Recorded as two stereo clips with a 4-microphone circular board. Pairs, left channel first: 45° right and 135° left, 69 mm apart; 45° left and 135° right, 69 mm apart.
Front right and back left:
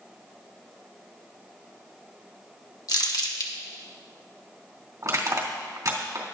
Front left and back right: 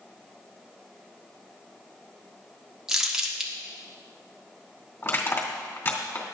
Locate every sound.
2.9 s crumpling: 55° right, 1.5 m
5.0 s crushing: 95° left, 2.5 m